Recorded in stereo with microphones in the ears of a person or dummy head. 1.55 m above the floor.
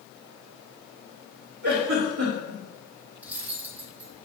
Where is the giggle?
65° right (ahead or behind), 2 m.